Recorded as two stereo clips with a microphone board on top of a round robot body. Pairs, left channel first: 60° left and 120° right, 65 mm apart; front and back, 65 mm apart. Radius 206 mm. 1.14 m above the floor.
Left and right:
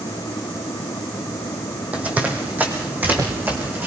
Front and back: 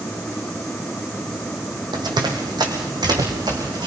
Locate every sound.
1.9 s running footsteps: 170° left, 3 m; by 3.9 s 175° left, 5 m